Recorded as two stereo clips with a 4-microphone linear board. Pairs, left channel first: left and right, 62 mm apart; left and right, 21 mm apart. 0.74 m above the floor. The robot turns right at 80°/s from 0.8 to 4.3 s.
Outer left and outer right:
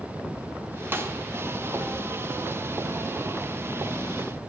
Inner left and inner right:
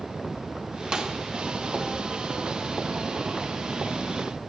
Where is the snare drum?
35° right (ahead or behind), 0.9 m; by 1.1 s 45° right (ahead or behind), 0.9 m.